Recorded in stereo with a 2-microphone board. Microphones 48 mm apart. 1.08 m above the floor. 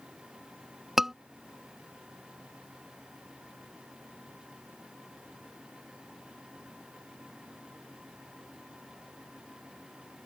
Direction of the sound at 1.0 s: 10° right (ahead or behind).